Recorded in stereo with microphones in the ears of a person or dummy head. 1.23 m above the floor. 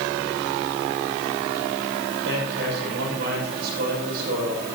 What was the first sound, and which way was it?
A man speaking, 65° right (ahead or behind).